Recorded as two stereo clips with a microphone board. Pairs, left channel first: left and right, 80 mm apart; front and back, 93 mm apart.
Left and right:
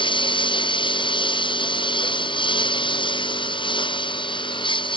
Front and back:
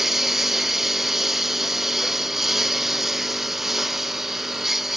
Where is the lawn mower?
95° left.